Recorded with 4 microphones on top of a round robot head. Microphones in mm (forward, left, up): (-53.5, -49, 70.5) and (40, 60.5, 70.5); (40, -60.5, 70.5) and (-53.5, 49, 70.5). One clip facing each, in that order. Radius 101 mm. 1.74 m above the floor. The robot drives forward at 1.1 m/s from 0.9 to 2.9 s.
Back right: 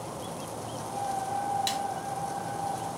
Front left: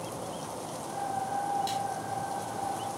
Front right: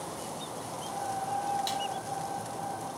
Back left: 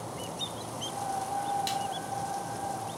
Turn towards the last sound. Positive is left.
turn(degrees=-160)